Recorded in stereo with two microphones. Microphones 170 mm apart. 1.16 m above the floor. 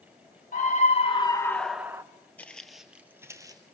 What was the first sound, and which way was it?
A scream, 50° left (ahead or behind).